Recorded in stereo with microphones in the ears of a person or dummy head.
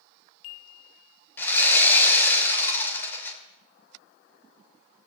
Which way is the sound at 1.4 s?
15° left (ahead or behind).